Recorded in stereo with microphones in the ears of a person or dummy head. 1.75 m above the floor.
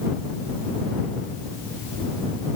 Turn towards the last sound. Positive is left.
No sound to turn to.